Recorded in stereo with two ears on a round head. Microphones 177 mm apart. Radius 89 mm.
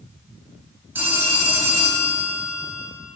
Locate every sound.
0.9 s a phone ringing: 10° right (ahead or behind), 1.5 m